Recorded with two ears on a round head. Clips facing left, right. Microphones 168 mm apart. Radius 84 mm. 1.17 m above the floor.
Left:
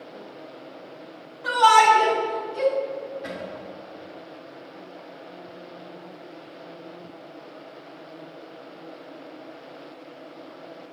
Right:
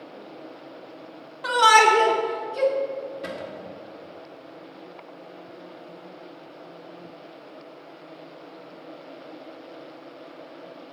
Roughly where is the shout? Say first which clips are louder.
Left 1 dB; right.